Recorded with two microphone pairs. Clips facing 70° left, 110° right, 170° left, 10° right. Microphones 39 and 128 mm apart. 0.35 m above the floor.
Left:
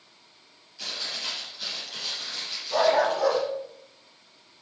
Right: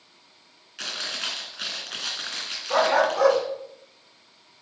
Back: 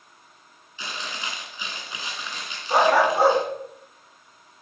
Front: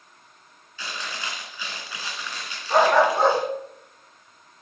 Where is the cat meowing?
I don't hear a cat meowing.